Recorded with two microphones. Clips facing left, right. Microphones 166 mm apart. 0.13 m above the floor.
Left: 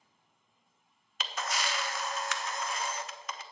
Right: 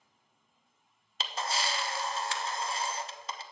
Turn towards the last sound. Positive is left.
turn(degrees=-30)  # may be behind; listen again after turning